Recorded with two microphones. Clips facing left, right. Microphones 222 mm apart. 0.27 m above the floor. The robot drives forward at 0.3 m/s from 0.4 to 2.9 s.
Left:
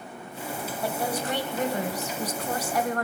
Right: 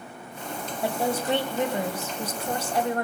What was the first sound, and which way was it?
A woman speaking, 25° right (ahead or behind).